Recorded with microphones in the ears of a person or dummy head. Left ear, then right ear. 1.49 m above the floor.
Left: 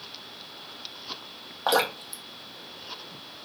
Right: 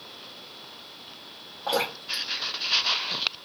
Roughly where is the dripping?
Left.